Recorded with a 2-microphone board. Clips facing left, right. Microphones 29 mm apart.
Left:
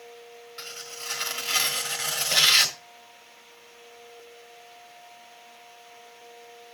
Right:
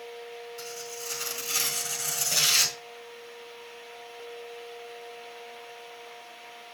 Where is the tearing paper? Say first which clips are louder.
Left 4 dB; 45° left (ahead or behind), 1.5 m.